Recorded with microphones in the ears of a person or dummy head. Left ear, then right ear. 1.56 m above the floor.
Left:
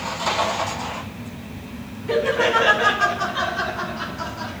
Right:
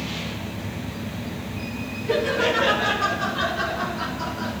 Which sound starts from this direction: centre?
Laughter, at 2.1 s.